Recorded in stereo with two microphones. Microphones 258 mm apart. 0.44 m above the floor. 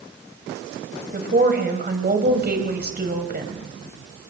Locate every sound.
1.1 s a woman speaking: 40° right (ahead or behind), 3 m